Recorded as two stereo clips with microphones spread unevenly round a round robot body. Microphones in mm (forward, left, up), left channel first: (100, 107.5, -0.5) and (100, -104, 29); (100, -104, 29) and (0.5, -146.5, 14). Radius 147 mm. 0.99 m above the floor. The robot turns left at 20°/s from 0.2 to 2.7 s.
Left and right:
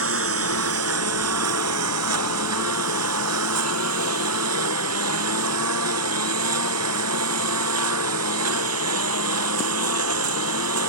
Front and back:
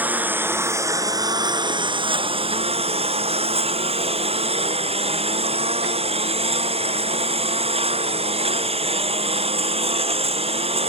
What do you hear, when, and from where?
0.0 s a lawn mower: 80° right; by 10.9 s 130° right